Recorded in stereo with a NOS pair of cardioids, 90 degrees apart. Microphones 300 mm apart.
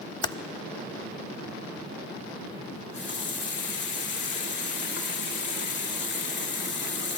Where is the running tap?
40° left, 2 m.